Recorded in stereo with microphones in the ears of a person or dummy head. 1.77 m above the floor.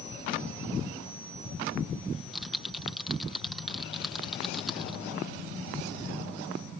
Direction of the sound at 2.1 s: Centre (ahead or behind).